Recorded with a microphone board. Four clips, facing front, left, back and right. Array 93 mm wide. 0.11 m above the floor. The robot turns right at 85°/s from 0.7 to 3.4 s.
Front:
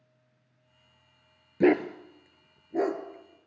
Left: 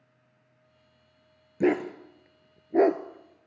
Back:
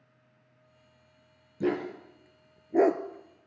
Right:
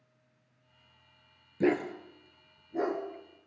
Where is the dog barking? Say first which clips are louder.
Left 3 dB, front 7 dB; 15° left, 0.7 m; by 3.0 s 135° left, 0.7 m.